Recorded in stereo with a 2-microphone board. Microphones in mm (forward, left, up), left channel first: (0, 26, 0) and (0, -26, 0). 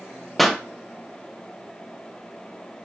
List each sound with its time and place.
0.4 s a pop: 5° left (ahead or behind), 0.9 m